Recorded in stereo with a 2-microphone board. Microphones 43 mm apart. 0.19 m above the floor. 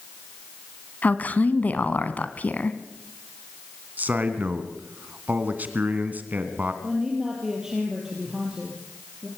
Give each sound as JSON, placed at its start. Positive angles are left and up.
{"t": 1.0, "sound": "a woman speaking", "side_deg": 45, "distance_m": 1.4}
{"t": 4.0, "sound": "a man speaking", "side_deg": -40, "distance_m": 2.0}
{"t": 6.8, "sound": "a woman speaking", "side_deg": -15, "distance_m": 4.0}